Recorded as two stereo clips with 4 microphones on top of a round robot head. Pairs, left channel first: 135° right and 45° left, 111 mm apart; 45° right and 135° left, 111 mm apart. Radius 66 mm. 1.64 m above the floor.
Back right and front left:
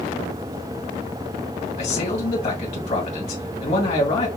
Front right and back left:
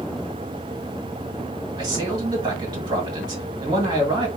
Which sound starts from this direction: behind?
A man speaking, at 1.8 s.